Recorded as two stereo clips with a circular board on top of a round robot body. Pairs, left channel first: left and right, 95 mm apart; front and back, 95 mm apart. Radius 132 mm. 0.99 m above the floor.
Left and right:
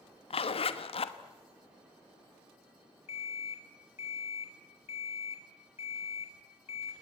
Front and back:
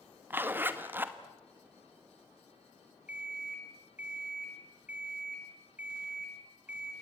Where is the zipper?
110° left, 1.3 m.